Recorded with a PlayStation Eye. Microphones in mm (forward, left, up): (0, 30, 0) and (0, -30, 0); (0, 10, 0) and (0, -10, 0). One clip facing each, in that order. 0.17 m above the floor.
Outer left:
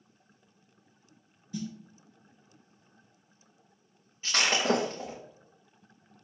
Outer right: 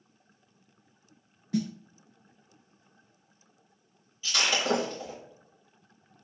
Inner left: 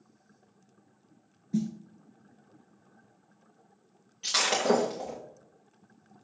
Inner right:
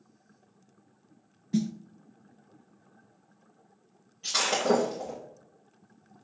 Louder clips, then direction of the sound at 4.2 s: Outer left 1 dB, even; 45° left (ahead or behind).